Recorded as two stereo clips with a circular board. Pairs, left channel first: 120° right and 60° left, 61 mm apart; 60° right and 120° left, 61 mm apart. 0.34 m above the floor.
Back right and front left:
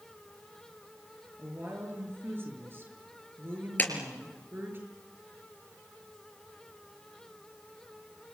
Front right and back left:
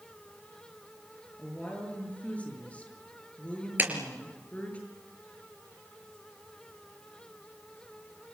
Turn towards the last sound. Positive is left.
turn(degrees=180)